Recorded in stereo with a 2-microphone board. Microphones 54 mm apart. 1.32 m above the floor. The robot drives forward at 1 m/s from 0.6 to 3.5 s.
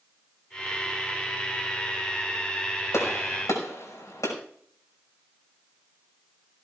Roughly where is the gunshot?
Left.